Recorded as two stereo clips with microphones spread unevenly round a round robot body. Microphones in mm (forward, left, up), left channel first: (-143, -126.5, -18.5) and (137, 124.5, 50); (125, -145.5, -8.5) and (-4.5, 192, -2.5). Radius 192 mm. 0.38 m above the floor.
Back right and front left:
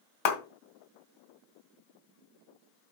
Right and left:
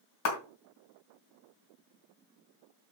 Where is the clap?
120° right, 2 m.